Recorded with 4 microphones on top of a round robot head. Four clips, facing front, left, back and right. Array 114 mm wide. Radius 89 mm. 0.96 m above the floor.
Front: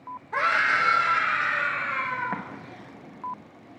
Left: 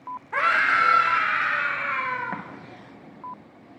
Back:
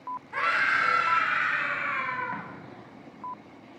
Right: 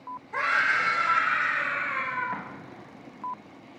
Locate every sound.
0.3 s a scream: 60° left, 2 m; by 2.4 s 75° left, 4 m
2.3 s an explosion: 40° left, 1.0 m